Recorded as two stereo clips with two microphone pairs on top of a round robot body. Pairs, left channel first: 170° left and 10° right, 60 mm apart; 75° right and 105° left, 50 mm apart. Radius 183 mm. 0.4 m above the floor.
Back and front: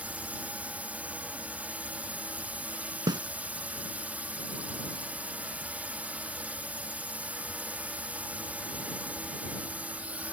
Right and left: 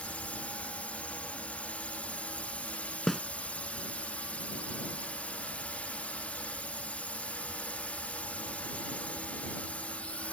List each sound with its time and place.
0.0 s a drone: 60° right
3.1 s a snare drum: 10° left